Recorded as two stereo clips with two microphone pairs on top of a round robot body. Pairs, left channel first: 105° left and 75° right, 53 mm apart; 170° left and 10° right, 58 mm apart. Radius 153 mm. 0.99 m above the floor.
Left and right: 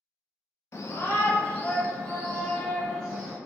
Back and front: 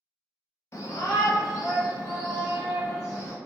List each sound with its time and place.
0.7 s a shout: 135° left, 0.7 m; by 3.4 s 165° right, 1.7 m